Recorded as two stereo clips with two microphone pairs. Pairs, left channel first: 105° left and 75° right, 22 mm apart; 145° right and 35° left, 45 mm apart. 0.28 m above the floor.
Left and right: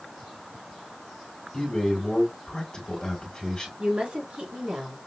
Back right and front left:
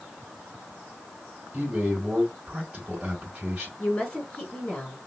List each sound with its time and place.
1.5 s a man speaking: 85° left, 1.9 m
3.8 s a woman speaking: 90° right, 3.5 m